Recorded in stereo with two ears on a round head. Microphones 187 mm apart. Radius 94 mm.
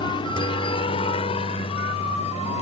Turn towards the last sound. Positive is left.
turn(degrees=30)  # may be behind; listen again after turning